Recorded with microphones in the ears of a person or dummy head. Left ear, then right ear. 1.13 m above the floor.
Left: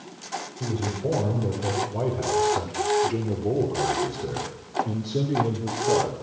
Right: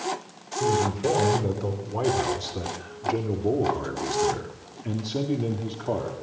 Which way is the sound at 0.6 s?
75° right (ahead or behind).